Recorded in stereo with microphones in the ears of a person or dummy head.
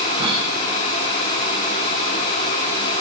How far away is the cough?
About 8 m.